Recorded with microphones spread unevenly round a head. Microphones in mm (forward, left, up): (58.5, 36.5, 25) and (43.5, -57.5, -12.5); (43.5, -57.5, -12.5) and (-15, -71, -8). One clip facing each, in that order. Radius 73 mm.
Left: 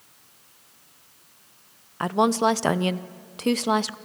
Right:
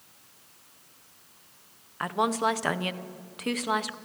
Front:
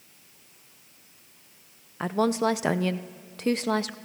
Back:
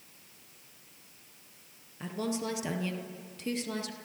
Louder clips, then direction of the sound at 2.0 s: Left 6 dB, front 10 dB; 50° left.